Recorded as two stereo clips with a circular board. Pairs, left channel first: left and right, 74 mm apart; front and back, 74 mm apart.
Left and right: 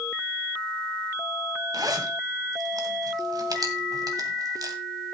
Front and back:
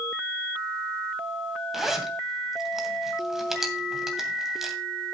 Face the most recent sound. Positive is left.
turn(degrees=-95)